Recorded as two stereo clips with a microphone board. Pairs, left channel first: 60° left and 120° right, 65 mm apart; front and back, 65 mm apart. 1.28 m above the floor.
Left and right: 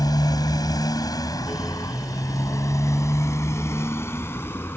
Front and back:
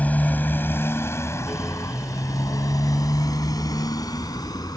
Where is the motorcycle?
65° left; by 4.8 s 5° left.